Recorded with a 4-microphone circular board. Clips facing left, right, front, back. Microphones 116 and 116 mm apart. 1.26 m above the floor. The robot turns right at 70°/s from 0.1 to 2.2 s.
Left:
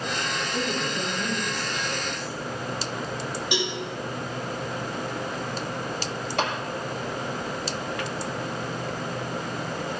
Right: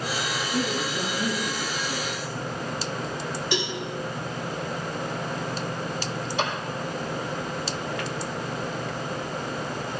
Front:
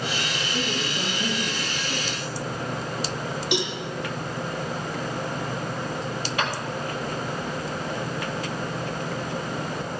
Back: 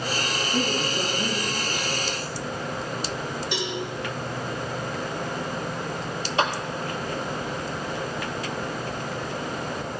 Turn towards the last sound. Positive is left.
turn(degrees=115)